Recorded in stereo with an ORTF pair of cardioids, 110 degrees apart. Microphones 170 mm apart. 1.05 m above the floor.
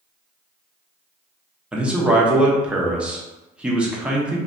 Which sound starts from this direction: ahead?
A man speaking, at 1.7 s.